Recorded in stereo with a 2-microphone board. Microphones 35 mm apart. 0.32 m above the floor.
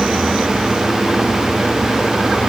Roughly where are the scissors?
I don't hear scissors.